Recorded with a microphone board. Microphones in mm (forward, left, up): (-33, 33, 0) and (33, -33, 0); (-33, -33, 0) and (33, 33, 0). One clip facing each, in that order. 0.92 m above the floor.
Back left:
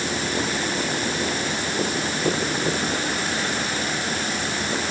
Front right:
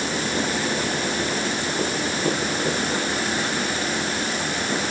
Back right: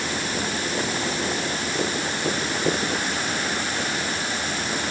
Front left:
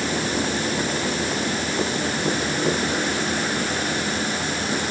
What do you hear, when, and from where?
Only background noise.